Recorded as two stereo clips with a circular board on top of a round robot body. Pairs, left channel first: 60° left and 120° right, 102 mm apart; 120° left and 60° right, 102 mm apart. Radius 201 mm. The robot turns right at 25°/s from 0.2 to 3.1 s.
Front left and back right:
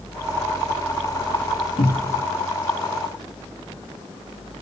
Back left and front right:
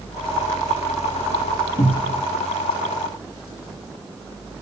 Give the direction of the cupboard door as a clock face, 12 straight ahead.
9 o'clock.